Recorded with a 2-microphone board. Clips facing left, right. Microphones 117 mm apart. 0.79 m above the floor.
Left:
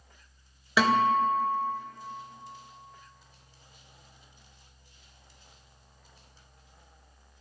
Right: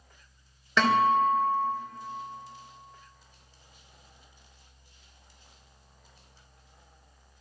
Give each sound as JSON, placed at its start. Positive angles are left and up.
{"t": 0.8, "sound": "a guitar", "side_deg": 5, "distance_m": 2.5}